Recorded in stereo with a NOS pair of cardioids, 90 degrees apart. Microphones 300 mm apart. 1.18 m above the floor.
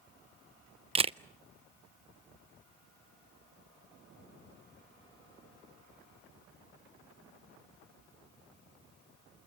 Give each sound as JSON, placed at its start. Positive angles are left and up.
{"t": 0.9, "sound": "a camera shutter", "azimuth_deg": -20, "distance_m": 0.5}